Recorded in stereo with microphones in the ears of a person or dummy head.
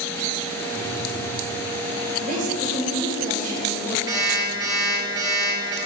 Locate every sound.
0.7 s a phone buzzing: 60° right (ahead or behind), 1.1 m
2.2 s a woman speaking: 50° right (ahead or behind), 1.0 m
4.1 s an alarm clock: 25° right (ahead or behind), 0.9 m